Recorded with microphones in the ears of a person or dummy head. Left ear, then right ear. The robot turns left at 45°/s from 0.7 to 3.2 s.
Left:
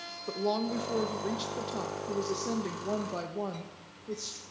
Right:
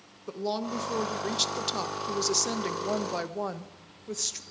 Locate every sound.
0.3 s a woman speaking: 5° right, 1.2 m; by 4.4 s 120° right, 1.2 m